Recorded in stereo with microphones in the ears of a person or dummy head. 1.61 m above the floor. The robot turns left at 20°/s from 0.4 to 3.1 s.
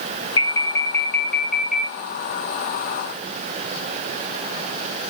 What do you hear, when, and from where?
0.4 s an alarm: 25° left, 3 m; by 1.9 s 5° right, 3 m